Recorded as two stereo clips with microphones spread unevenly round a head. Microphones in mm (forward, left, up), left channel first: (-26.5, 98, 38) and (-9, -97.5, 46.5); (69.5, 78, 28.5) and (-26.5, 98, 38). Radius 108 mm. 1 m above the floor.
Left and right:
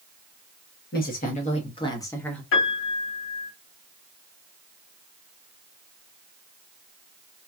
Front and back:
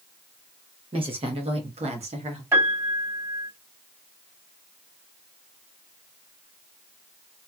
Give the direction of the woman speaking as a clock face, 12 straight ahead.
7 o'clock.